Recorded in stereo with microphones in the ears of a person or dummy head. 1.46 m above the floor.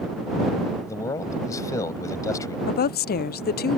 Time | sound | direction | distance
0.9 | a man speaking | 20° left (ahead or behind) | ?
2.7 | a woman speaking | 45° left (ahead or behind) | ?